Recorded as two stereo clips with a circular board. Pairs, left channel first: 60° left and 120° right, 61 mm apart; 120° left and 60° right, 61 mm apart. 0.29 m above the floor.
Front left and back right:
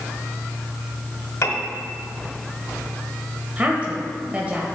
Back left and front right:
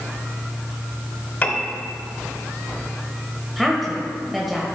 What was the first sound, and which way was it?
A piano, 75° left.